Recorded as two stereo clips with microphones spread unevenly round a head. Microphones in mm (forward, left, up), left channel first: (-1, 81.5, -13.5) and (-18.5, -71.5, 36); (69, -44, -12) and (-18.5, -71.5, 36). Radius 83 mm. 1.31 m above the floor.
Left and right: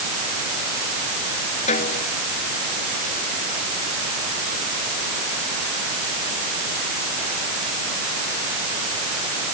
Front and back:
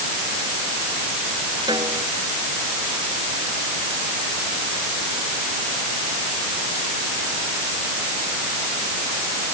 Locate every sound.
1.7 s a snare drum: 135° left